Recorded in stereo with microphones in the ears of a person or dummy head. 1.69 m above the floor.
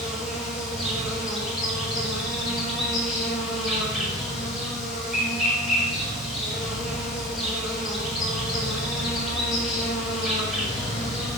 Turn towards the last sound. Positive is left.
turn(degrees=0)  # may be behind; listen again after turning